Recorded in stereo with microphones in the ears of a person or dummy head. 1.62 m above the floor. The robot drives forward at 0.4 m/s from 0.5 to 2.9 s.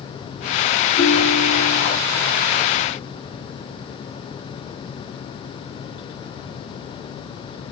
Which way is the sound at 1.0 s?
55° left (ahead or behind).